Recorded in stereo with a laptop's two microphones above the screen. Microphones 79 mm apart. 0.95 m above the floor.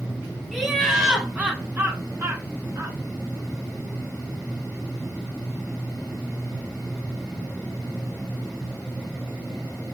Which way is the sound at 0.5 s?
Centre (ahead or behind).